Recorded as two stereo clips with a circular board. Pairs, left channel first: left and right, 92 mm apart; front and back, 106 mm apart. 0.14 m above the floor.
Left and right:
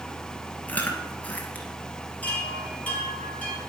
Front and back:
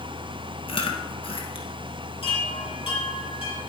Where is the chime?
15° left, 3.5 m.